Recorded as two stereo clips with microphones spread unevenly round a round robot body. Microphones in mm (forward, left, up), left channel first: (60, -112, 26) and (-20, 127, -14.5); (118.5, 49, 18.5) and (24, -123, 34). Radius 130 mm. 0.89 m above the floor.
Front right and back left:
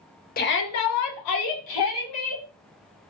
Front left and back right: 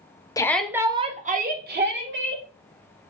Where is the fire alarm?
No fire alarm in this recording.